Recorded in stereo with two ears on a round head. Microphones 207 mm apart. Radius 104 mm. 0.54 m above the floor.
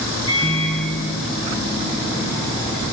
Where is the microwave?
20° left (ahead or behind), 0.6 m.